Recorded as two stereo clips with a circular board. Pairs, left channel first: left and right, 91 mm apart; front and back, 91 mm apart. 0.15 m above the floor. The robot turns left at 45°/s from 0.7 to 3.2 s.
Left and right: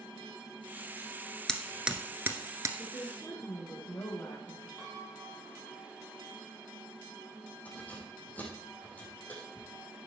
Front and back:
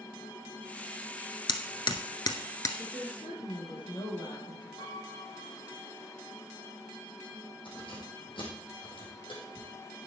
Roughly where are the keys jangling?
Ahead.